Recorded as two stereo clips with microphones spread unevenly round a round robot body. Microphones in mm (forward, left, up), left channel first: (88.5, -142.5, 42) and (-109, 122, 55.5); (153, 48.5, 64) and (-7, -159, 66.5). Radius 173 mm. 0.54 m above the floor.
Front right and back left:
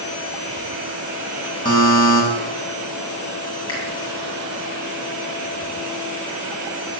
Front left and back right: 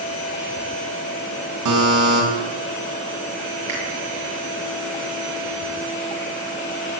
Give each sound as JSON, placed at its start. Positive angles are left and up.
{"t": 1.6, "sound": "a buzzer", "azimuth_deg": -130, "distance_m": 4.5}
{"t": 3.7, "sound": "a finger snap", "azimuth_deg": -105, "distance_m": 9.5}